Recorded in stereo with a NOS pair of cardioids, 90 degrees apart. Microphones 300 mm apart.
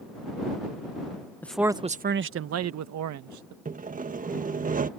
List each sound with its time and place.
1.4 s a man speaking: 5° left; by 3.5 s 75° right
3.6 s sawing: 25° right